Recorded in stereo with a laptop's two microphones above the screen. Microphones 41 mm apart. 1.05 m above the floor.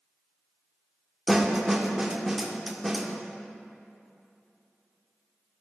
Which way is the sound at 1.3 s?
10° right (ahead or behind).